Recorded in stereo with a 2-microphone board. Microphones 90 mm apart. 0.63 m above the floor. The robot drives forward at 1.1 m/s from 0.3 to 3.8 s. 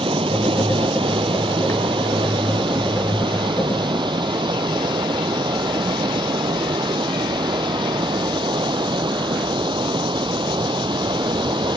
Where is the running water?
75° right (ahead or behind); by 11.8 s 60° right (ahead or behind).